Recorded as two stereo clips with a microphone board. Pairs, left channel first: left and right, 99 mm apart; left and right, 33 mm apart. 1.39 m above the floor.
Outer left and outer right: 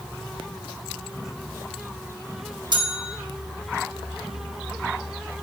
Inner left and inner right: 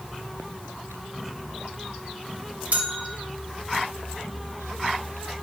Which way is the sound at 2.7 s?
45° right (ahead or behind).